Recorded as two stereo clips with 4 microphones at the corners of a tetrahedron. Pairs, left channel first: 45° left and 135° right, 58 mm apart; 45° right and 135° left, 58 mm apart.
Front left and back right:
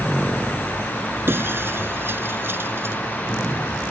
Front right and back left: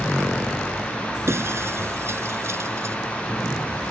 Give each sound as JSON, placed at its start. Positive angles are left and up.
{"t": 1.3, "sound": "breaking glass", "azimuth_deg": 175}